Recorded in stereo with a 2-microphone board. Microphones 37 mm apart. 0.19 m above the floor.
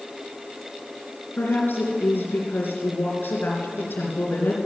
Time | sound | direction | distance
1.4 | a woman speaking | 65° left (ahead or behind) | 3 m